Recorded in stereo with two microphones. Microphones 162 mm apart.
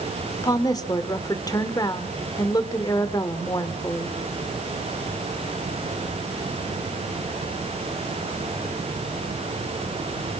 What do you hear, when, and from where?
0.4 s a woman speaking: 25° left (ahead or behind), 1.4 m